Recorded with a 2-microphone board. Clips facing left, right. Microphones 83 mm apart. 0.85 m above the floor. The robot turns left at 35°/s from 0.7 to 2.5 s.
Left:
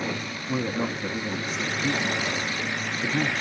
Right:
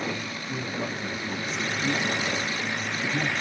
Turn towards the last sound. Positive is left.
turn(degrees=50)